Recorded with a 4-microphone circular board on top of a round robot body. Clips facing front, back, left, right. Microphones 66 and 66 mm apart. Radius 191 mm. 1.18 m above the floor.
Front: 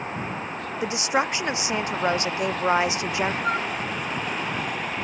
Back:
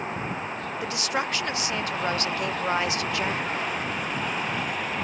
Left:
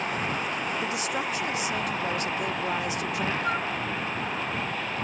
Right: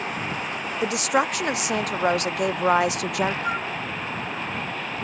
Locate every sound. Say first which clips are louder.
0.8 s a woman speaking: front 5 dB, right 7 dB; 70° right
3.4 s a flute: front 4 dB, right 1 dB; 5° right